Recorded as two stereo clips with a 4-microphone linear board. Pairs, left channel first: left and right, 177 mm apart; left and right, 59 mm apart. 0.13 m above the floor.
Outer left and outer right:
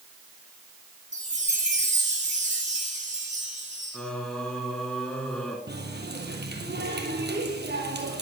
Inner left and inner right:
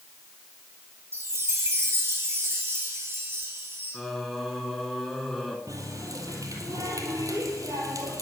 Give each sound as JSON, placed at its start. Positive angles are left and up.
{"t": 1.1, "sound": "a chime", "side_deg": -45, "distance_m": 3.5}
{"t": 3.9, "sound": "singing", "side_deg": 5, "distance_m": 1.9}
{"t": 5.7, "sound": "a running tap", "side_deg": -70, "distance_m": 2.5}